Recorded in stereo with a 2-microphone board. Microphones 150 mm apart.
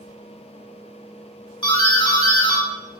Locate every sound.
1.6 s a doorbell: 35° left (ahead or behind), 2 m